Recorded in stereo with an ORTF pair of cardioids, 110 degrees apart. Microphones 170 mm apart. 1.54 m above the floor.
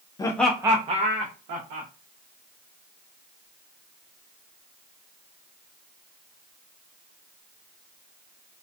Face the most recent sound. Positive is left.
turn(degrees=-70)